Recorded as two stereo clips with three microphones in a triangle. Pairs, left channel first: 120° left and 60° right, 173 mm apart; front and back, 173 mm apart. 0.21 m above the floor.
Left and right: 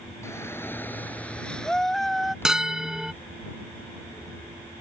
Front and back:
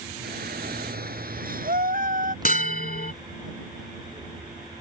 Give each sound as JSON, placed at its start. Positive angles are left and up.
{"t": 0.2, "sound": "a shout", "azimuth_deg": -165}
{"t": 2.5, "sound": "a bell", "azimuth_deg": 25}